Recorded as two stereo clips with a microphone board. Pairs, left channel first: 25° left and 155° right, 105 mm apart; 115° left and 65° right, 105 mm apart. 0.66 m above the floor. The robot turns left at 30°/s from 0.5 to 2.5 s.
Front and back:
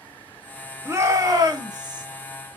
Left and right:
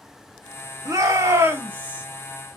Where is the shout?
105° right, 1.2 m; by 2.0 s 140° right, 1.2 m.